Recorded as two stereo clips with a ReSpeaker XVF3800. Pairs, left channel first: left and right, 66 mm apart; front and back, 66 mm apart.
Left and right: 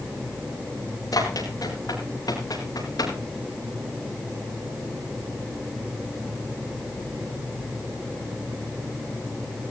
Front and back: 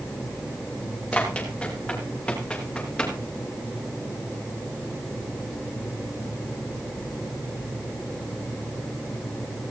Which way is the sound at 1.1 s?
75° left.